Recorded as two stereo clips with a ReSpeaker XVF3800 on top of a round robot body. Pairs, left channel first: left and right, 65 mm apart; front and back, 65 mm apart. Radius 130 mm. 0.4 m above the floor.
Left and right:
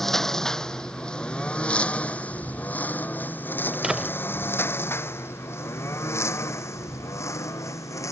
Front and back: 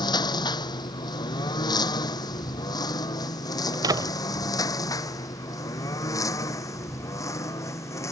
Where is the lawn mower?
5° left; by 8.1 s 50° left.